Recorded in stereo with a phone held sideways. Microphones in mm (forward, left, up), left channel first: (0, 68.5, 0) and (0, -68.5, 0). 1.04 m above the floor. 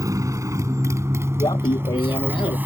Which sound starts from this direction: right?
A motorcycle, at 0.0 s.